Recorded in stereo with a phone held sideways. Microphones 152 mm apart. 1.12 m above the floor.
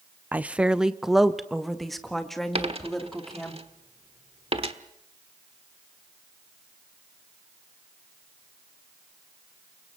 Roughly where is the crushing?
No crushing in this recording.